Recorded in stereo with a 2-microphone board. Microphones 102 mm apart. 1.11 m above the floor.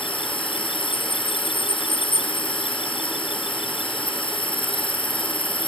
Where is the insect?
55° left (ahead or behind).